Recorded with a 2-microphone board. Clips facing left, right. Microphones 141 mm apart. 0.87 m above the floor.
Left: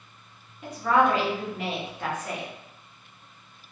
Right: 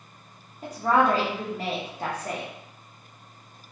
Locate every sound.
0.6 s a woman speaking: 40° right (ahead or behind), 0.8 m